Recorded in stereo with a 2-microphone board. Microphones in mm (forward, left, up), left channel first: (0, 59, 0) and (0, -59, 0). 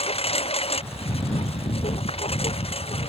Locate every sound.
0.0 s a lawn mower: 55° left (ahead or behind)